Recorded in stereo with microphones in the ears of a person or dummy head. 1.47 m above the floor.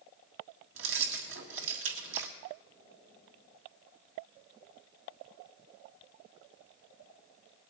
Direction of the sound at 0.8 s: 75° right (ahead or behind).